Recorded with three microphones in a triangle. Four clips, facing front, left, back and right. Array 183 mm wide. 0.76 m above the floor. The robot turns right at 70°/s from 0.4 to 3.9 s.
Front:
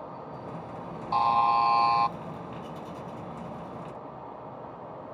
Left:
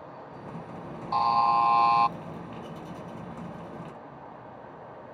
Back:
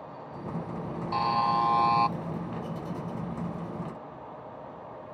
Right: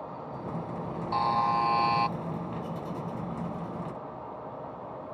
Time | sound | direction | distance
1.1 | a buzzer | 30° left | ?